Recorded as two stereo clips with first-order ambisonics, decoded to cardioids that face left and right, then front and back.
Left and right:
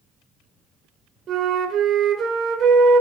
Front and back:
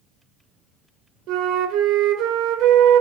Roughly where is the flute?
Behind right.